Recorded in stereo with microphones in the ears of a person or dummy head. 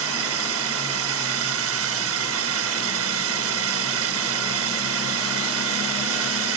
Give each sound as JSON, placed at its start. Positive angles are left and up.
{"t": 0.0, "sound": "a drone", "side_deg": -75}